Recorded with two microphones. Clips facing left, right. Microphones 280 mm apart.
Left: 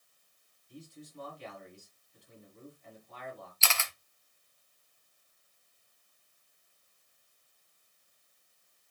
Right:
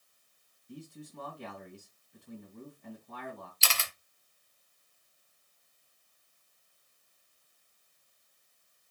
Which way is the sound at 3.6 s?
40° right (ahead or behind).